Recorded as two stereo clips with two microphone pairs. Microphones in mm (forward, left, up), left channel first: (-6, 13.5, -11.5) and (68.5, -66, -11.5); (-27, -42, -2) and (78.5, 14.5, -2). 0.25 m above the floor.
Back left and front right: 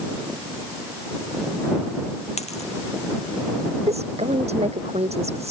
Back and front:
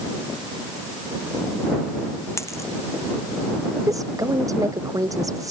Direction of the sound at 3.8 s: 35° right.